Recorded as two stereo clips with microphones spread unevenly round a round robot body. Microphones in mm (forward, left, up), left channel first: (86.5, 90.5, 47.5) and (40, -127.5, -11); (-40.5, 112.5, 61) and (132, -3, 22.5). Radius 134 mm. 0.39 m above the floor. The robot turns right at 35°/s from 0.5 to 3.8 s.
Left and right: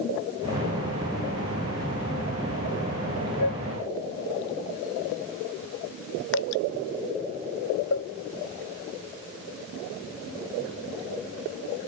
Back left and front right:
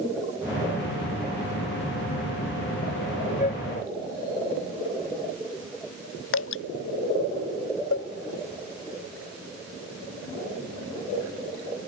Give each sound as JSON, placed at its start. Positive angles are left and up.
{"t": 3.4, "sound": "a flute", "azimuth_deg": 95}
{"t": 6.3, "sound": "dripping", "azimuth_deg": 125}
{"t": 7.9, "sound": "a cowbell", "azimuth_deg": 125}